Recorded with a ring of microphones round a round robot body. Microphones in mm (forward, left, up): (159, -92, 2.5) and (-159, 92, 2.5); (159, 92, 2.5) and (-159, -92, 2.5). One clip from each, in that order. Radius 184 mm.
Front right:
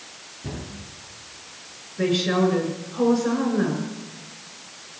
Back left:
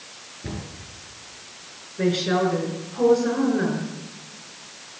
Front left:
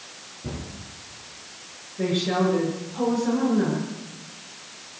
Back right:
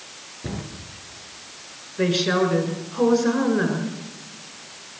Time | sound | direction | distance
0.4 | a cupboard door | 160° right | 7 m
2.0 | a woman speaking | 120° right | 4.5 m